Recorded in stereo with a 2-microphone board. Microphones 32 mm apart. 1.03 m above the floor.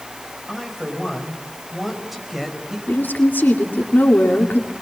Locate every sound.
0.5 s a woman speaking: 5° right (ahead or behind), 4.5 m
2.9 s a woman speaking: 80° left, 2.5 m